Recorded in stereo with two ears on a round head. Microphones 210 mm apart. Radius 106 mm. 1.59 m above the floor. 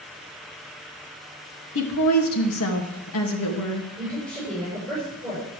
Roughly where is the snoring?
I don't hear snoring.